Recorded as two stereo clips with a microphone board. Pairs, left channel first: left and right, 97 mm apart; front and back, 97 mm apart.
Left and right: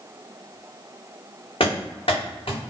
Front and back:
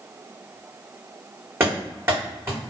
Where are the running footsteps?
115° left, 1.8 m.